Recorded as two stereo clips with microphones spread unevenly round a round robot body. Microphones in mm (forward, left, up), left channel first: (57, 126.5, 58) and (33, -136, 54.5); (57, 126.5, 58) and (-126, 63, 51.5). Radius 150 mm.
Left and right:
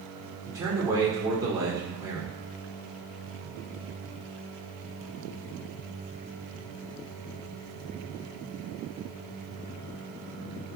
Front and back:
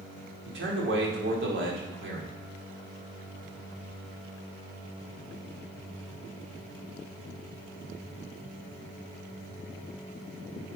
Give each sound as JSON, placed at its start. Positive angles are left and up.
{"t": 0.5, "sound": "a man speaking", "azimuth_deg": -175, "distance_m": 2.5}